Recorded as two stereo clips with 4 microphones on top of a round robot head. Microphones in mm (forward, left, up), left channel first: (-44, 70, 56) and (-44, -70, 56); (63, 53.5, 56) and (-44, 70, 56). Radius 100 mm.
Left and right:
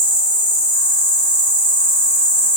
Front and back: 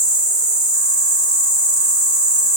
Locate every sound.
0.0 s an insect: 125° left, 1.0 m